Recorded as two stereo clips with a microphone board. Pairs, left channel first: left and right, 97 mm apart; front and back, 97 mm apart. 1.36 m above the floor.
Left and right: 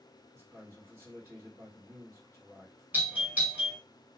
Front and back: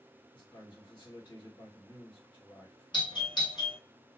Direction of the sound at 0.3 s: 25° right.